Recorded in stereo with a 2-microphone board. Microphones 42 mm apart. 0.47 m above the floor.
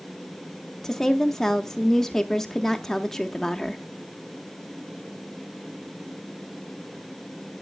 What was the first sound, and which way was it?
A woman speaking, 10° left (ahead or behind).